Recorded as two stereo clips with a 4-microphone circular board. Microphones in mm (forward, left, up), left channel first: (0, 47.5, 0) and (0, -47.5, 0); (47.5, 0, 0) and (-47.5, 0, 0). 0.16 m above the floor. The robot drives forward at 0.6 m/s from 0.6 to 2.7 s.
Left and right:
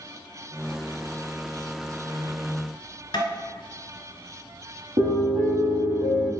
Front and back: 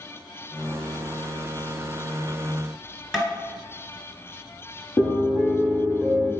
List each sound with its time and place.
3.1 s tapping: 95° left, 1.1 m
5.0 s a piano: 80° right, 1.5 m